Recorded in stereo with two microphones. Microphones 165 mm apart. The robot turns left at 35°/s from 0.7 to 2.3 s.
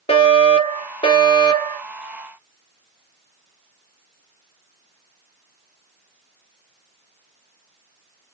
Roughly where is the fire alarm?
Left.